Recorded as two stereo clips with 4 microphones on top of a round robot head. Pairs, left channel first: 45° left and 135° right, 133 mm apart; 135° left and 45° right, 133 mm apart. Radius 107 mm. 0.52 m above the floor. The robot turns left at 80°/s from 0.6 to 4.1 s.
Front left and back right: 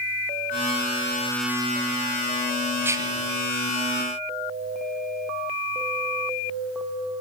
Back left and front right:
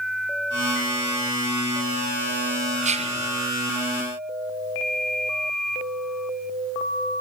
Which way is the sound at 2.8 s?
60° right.